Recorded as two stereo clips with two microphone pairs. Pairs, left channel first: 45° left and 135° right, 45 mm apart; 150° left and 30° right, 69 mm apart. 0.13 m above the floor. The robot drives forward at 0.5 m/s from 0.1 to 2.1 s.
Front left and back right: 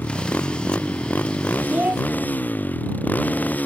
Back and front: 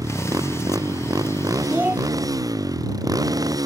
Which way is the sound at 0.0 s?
5° left.